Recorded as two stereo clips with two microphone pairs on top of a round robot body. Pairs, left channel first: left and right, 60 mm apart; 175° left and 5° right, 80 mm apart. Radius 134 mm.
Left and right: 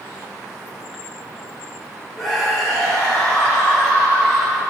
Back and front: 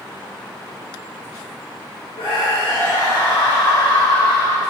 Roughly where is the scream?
Behind.